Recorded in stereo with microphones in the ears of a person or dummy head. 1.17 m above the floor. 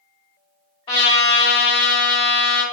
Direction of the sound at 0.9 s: 25° left (ahead or behind).